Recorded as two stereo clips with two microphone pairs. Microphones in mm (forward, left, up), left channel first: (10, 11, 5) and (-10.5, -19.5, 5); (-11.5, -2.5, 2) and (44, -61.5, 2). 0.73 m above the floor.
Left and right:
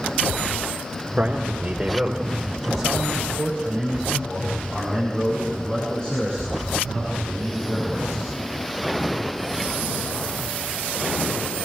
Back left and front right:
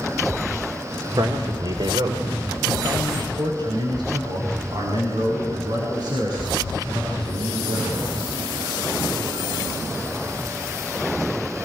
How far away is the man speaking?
About 2 m.